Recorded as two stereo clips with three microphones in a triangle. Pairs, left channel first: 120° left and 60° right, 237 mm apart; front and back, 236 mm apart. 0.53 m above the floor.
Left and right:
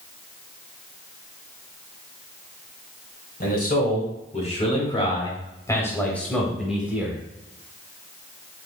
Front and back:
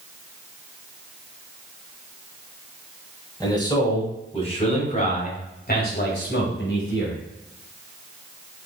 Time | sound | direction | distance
3.4 | a man speaking | 70° left | 3.5 m